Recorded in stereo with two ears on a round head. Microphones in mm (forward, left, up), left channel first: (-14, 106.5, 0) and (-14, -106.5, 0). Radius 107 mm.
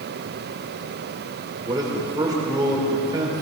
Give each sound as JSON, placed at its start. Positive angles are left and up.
{"t": 1.6, "sound": "a man speaking", "side_deg": -15, "distance_m": 5.0}